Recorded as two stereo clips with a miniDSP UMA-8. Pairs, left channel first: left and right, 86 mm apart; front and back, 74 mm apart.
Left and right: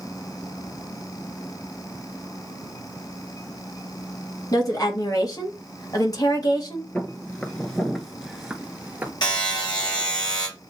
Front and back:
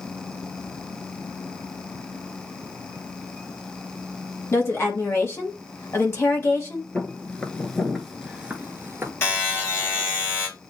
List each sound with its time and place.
4.5 s a woman speaking: 50° left, 1.5 m
7.0 s footsteps: 40° left, 1.1 m; by 9.1 s 150° right, 1.1 m
9.2 s a buzzer: 55° left, 3 m